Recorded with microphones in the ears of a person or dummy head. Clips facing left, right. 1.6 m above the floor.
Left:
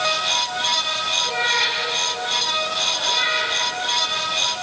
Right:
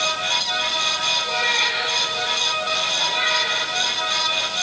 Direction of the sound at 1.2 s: 25° left (ahead or behind).